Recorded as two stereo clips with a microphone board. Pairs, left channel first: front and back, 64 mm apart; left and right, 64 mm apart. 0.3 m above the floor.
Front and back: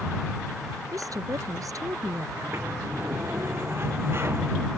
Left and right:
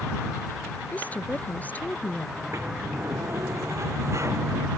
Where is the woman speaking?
155° left.